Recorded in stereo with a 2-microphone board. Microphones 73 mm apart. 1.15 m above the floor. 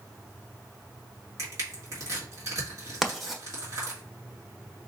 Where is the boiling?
I don't hear boiling.